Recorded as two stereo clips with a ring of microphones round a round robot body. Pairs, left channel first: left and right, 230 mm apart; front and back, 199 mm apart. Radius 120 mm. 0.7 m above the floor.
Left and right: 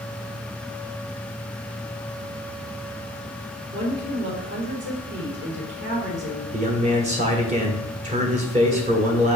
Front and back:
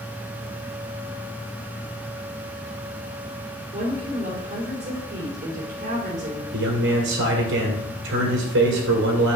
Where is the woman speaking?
130° right, 3 m.